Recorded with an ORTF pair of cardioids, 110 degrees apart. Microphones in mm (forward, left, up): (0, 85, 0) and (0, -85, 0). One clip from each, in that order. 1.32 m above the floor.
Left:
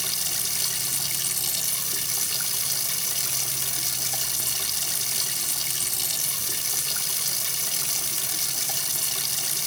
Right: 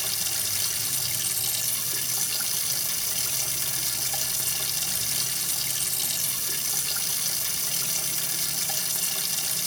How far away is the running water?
About 0.8 m.